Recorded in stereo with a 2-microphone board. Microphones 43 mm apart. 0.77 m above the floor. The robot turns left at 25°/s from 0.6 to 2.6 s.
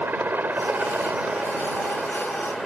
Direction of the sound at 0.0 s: 125° right.